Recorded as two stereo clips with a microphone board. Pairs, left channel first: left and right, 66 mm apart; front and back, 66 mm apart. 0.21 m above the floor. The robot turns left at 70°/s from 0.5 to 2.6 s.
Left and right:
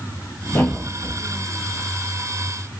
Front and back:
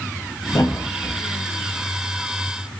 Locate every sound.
0.5 s a thud: 30° left, 7 m; by 1.2 s 15° right, 7 m